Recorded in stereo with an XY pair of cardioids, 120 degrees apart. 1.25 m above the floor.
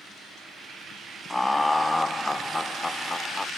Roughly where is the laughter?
Ahead.